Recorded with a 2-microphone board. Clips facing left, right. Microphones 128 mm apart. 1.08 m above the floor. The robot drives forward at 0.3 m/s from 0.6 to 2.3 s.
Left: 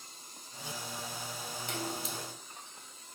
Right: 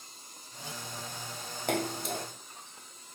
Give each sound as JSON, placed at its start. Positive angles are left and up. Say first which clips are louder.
{"t": 1.7, "sound": "a splash", "louder": "right 8 dB", "side_deg": -70, "distance_m": 1.8}